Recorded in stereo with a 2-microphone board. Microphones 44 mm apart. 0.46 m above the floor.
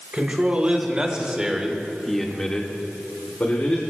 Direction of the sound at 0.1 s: 30° right (ahead or behind).